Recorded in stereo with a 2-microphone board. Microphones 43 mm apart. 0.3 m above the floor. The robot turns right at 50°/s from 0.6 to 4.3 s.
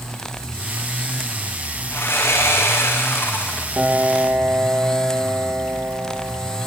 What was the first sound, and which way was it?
Sawing, 60° left.